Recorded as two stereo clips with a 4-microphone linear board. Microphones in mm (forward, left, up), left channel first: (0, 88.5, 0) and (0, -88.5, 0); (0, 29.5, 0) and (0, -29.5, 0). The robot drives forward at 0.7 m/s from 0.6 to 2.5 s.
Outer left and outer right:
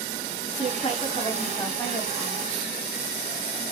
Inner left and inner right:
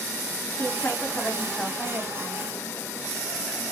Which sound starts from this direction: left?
A woman speaking, at 0.6 s.